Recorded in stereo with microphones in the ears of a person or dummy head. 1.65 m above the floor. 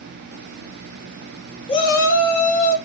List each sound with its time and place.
1.7 s a shout: 25° left (ahead or behind), 0.6 m; by 2.8 s 5° left (ahead or behind), 1.3 m